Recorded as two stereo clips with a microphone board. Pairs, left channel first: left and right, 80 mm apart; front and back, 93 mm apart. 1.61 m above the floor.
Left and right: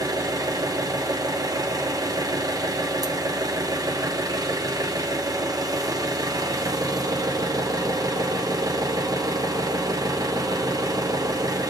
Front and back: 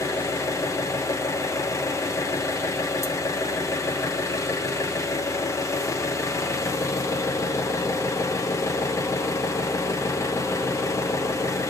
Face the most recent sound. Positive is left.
turn(degrees=-55)